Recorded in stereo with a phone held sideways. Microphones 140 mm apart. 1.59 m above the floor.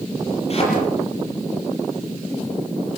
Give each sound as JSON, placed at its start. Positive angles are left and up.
{"t": 0.5, "sound": "a thud", "side_deg": 45, "distance_m": 7.5}